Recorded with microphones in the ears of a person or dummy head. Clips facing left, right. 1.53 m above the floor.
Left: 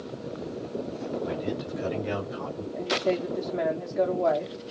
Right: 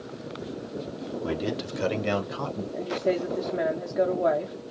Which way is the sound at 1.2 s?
65° right (ahead or behind).